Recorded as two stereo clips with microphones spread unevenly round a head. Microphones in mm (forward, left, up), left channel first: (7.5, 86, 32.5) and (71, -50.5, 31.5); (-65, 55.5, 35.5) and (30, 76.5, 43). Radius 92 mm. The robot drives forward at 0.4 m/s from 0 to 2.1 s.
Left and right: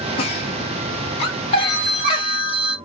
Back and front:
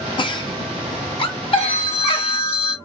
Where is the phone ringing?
Straight behind, 2.5 m.